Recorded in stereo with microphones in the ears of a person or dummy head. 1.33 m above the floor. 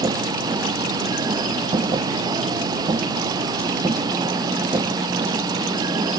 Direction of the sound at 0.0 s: 25° right (ahead or behind).